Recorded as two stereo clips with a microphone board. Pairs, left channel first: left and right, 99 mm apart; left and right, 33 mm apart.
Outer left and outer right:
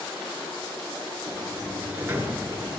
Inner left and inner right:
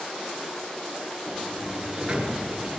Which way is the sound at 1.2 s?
25° right (ahead or behind).